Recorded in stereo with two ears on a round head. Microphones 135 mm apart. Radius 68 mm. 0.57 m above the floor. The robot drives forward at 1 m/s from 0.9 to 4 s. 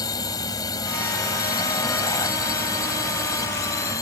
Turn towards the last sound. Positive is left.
turn(degrees=20)  # may be behind; listen again after turning